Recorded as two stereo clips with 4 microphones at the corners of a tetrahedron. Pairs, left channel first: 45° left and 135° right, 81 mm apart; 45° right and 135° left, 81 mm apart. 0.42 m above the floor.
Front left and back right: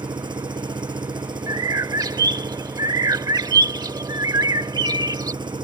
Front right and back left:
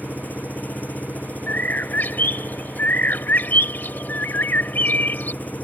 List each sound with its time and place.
0.0 s an engine running: 115° right
1.5 s a bird: 105° right